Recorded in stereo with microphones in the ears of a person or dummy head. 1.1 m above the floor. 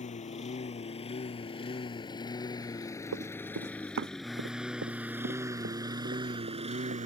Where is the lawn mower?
40° left (ahead or behind); by 7.1 s 35° right (ahead or behind).